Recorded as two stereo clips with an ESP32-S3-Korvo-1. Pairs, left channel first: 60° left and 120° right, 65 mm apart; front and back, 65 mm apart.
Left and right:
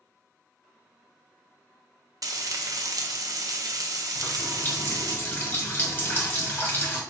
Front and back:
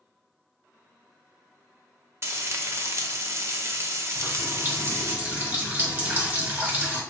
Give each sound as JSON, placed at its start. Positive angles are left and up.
{"t": 2.2, "sound": "frying", "azimuth_deg": -135, "distance_m": 0.5}
{"t": 4.2, "sound": "a running tap", "azimuth_deg": 115, "distance_m": 1.3}